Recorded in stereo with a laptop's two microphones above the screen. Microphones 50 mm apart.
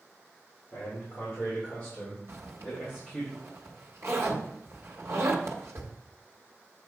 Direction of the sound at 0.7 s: 35° left (ahead or behind).